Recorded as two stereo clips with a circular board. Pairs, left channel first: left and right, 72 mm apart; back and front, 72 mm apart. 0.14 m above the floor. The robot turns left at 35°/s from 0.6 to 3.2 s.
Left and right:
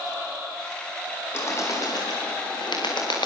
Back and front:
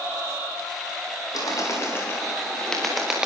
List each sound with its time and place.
1.3 s a bird: 145° left, 8 m; by 3.3 s 80° left, 8 m